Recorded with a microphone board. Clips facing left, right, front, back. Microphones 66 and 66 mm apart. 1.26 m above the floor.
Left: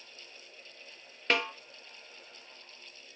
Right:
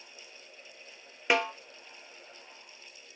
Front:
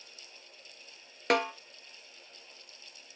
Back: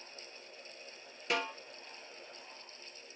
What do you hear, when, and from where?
1.3 s a snare drum: 15° right, 0.8 m